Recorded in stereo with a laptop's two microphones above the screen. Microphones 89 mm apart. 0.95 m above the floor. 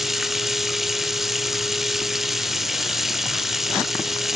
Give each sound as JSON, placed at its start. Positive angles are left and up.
{"t": 0.0, "sound": "running water", "side_deg": -5, "distance_m": 0.9}